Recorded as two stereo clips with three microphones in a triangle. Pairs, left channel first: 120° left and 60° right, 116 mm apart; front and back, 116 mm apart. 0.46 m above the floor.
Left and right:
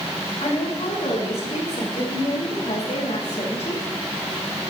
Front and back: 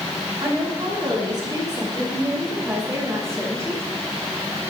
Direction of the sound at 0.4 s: 140° left.